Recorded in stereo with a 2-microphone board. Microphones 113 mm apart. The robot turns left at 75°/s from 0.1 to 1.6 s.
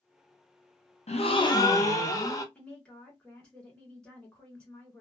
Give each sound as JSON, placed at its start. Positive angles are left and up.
{"t": 1.1, "sound": "a gasp", "azimuth_deg": 70, "distance_m": 0.6}
{"t": 2.5, "sound": "a woman speaking", "side_deg": 10, "distance_m": 1.6}